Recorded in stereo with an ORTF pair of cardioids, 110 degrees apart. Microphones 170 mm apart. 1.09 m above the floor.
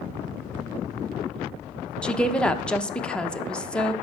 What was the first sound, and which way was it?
A woman speaking, 5° left.